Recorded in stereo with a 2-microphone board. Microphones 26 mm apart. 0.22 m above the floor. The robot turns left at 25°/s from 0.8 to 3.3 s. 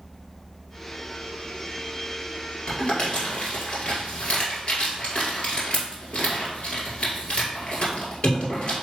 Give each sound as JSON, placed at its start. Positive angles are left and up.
{"t": 2.7, "sound": "crumpling", "side_deg": 30, "distance_m": 1.9}